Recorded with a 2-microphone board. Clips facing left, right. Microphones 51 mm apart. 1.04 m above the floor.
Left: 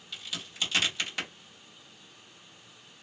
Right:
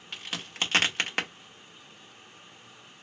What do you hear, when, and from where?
0.1 s a crack: 50° right (ahead or behind), 0.8 m